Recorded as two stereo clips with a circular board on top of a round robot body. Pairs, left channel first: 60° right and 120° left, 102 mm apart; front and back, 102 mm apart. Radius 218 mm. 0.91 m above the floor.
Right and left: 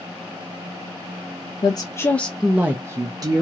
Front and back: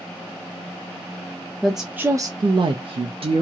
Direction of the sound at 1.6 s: 90° right.